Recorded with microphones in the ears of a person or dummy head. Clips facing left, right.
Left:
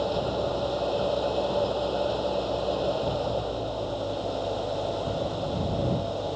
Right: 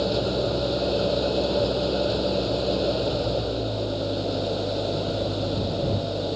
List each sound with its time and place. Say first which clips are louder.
0.0 s an engine running: right 3 dB; 30° right (ahead or behind)